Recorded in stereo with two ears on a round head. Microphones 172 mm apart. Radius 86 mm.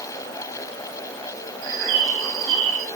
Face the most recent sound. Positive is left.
turn(degrees=-75)  # may be behind; listen again after turning